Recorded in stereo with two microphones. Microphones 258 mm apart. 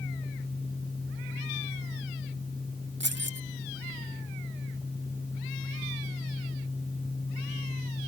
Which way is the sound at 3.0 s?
45° right (ahead or behind).